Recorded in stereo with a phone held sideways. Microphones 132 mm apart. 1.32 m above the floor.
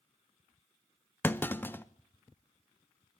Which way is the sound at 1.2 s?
15° left (ahead or behind).